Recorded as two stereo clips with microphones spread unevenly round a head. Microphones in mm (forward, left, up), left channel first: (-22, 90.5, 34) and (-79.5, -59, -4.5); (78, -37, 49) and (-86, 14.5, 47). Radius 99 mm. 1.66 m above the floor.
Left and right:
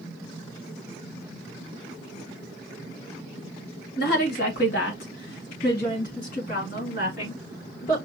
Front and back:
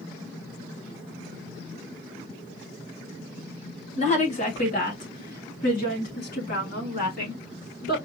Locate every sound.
4.0 s a woman speaking: 40° left, 1.3 m; by 8.0 s 20° left, 4 m